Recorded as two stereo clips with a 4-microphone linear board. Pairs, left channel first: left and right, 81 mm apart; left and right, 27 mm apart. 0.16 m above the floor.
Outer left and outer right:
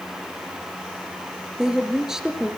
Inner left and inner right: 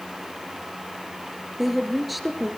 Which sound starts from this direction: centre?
A woman speaking, at 1.6 s.